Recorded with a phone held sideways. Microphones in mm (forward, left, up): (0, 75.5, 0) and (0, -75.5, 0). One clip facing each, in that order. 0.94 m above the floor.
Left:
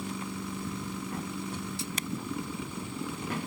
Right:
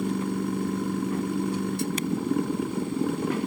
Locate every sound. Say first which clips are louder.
0.0 s a machine running: right 10 dB; 60° right (ahead or behind)